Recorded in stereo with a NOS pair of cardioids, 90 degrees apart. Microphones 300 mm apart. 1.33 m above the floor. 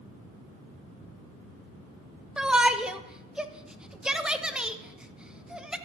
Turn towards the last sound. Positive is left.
turn(degrees=0)